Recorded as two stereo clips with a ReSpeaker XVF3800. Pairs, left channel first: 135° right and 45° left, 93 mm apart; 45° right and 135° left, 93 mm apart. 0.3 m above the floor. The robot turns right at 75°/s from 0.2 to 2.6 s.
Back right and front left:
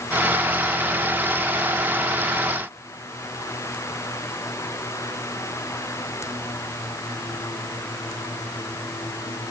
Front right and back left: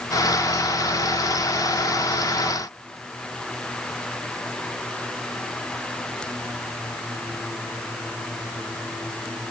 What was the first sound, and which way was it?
Only background noise.